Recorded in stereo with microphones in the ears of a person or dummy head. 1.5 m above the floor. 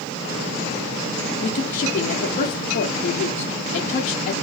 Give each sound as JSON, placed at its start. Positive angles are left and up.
{"t": 1.4, "sound": "a woman speaking", "side_deg": 55, "distance_m": 0.5}